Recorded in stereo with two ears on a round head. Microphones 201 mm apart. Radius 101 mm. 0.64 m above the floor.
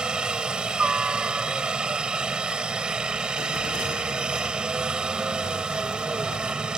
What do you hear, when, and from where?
0.0 s a helicopter: 5° right (ahead or behind)